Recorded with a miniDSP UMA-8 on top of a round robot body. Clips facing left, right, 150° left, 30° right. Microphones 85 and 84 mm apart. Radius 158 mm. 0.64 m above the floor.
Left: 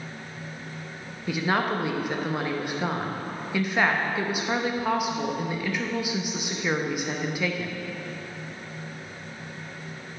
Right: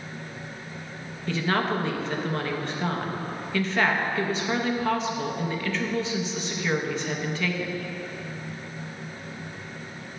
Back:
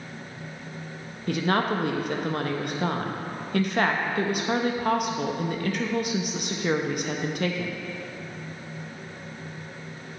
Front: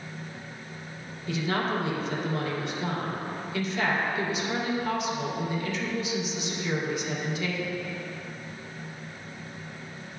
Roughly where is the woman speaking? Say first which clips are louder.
Even, back 4 dB; behind.